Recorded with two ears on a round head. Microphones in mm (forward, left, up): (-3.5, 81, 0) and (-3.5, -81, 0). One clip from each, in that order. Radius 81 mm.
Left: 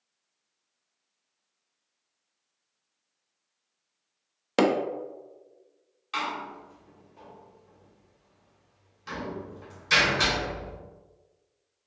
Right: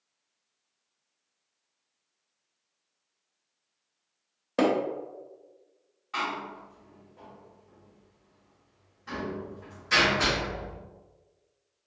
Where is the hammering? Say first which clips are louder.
Left 2 dB; 65° left (ahead or behind), 0.6 m.